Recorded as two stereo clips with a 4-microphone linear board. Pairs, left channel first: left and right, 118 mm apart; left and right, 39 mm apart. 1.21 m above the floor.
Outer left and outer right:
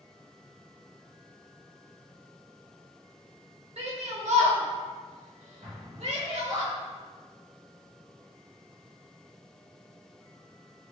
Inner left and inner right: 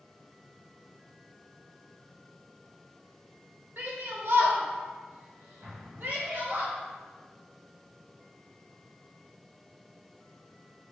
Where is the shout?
60° right (ahead or behind), 0.7 m; by 6.6 s 70° right (ahead or behind), 2 m.